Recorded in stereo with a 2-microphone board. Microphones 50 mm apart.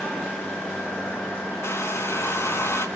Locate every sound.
1.6 s a hair dryer: 60° left (ahead or behind), 1.1 m